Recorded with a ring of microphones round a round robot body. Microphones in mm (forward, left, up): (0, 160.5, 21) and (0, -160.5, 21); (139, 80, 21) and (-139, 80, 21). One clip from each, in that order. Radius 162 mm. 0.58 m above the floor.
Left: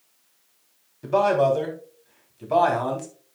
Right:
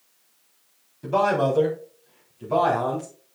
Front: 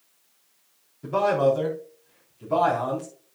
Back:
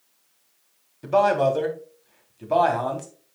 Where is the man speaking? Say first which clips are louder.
Left 2 dB, back 2 dB; 170° left, 3 m; by 3.1 s 150° left, 3.5 m.